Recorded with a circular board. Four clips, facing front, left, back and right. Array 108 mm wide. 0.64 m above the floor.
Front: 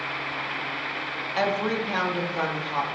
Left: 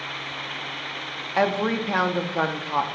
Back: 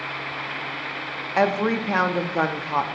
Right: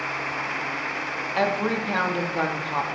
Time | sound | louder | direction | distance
1.4 | a woman speaking | left 2 dB, back 4 dB | 155° left | 0.5 m